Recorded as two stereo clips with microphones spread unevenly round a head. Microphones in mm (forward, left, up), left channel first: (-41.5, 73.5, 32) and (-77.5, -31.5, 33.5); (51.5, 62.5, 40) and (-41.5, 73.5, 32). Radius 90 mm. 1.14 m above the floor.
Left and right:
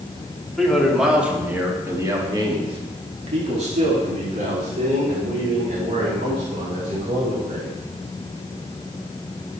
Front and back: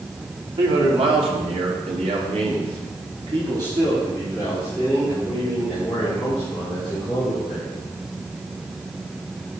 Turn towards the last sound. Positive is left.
turn(degrees=-90)